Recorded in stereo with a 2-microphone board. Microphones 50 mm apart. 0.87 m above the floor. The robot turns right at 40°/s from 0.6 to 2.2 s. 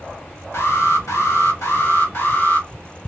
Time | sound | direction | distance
0.5 | an alarm | 60° left | 1.6 m